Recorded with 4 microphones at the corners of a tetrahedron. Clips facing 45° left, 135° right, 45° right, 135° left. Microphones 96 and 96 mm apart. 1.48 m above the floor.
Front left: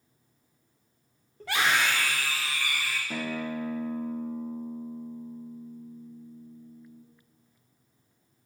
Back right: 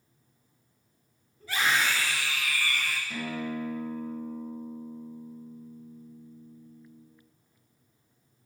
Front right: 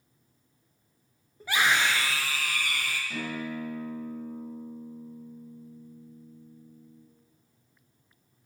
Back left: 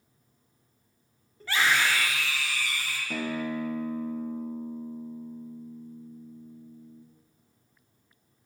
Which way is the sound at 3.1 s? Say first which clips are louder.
Front left 2 dB, back left 7 dB; 95° left.